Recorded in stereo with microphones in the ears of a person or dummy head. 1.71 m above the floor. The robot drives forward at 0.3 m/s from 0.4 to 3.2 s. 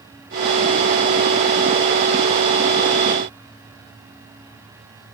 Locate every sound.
Only background noise.